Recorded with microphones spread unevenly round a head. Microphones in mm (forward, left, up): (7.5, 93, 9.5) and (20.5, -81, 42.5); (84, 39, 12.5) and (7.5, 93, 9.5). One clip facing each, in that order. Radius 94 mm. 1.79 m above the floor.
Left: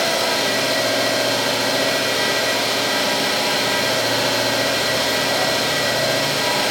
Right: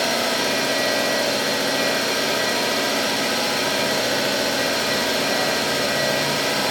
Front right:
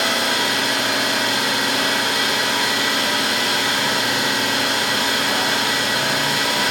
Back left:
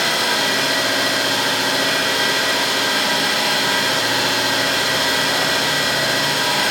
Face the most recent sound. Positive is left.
turn(degrees=-135)